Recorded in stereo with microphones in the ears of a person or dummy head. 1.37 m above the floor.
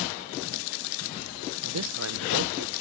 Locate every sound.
1.6 s a man speaking: 75° right (ahead or behind); by 2.7 s 50° right (ahead or behind)